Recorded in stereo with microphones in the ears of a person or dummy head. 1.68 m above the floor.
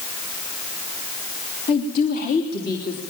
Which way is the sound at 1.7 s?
50° left (ahead or behind).